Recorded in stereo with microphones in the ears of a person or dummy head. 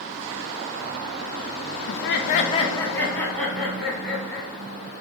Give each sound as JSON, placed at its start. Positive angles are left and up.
{"t": 1.9, "sound": "laughter", "side_deg": 75, "distance_m": 0.5}